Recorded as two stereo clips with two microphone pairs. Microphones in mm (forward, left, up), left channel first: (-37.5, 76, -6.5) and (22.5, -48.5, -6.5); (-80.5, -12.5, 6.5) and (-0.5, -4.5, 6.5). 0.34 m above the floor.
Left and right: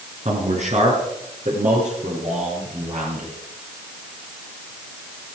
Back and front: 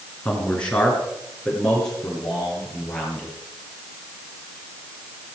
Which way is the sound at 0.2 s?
100° right.